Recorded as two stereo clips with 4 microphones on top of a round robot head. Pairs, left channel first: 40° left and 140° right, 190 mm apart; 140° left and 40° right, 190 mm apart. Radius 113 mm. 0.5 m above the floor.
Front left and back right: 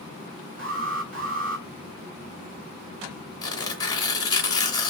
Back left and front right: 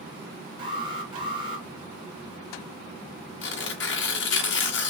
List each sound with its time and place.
0.6 s an alarm: 105° right, 2.5 m
3.4 s tearing paper: 110° left, 1.8 m